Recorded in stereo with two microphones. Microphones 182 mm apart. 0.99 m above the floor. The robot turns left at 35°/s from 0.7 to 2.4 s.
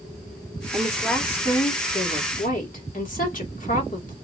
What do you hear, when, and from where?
0.7 s a woman speaking: 170° right, 2.5 m; by 4.2 s 130° left, 2.5 m